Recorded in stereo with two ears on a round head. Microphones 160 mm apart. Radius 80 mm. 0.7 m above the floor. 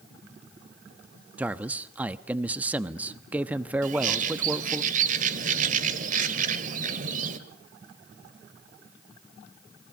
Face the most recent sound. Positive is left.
turn(degrees=-45)  # may be behind; listen again after turning